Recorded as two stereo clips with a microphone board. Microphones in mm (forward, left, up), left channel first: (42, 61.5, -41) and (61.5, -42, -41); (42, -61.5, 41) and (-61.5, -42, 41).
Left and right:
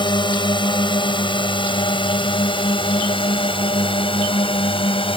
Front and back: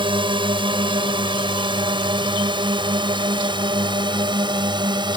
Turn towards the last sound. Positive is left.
turn(degrees=130)